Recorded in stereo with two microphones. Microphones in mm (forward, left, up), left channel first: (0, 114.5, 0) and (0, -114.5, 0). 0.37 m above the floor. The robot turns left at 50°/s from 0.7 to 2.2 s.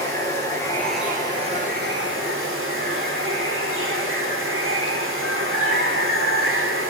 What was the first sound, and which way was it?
Running water, 10° left.